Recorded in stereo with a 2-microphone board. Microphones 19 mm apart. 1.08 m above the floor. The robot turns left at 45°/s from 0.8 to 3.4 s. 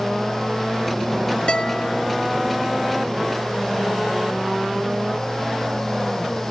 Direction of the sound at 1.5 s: 55° left (ahead or behind).